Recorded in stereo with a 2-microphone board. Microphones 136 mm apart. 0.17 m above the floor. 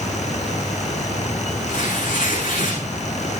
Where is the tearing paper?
85° left, 7 m.